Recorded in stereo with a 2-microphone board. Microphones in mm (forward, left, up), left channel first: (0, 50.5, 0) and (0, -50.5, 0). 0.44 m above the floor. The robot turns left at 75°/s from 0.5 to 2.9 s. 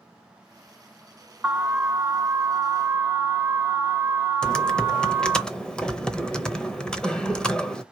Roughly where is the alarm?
Centre.